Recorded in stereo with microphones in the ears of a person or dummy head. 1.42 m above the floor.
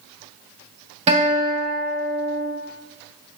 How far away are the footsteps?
I don't hear footsteps.